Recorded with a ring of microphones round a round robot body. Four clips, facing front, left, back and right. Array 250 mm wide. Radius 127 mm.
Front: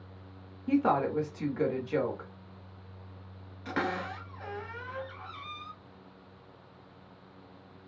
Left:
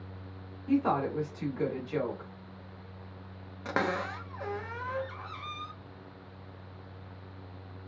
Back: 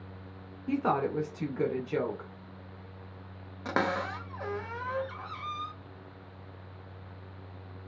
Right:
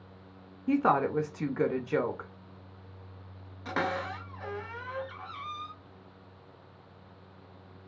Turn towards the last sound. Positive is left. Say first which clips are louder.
# left 1 dB, back 3 dB
turn(degrees=145)